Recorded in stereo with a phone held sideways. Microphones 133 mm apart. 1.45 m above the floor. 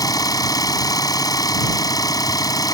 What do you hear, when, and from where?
0.0 s an engine running: 30° left (ahead or behind)